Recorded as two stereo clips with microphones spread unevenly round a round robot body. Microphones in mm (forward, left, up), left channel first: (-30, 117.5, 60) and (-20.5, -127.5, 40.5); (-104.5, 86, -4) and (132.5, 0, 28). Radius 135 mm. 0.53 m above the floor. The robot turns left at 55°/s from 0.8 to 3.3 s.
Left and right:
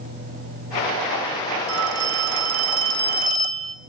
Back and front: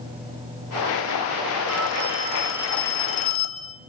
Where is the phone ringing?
55° right, 2 m; by 3.8 s 145° right, 2 m.